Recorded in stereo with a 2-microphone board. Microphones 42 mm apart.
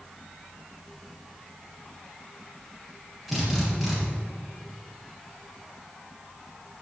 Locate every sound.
3.3 s a drill: centre (ahead or behind), 5.5 m